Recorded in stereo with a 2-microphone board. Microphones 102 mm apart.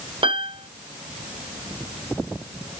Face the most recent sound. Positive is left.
turn(degrees=-60)  # may be behind; listen again after turning